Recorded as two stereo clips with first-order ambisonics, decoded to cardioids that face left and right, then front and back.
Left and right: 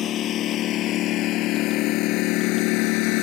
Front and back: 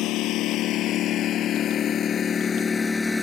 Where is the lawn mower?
40° left; by 3.2 s 80° left.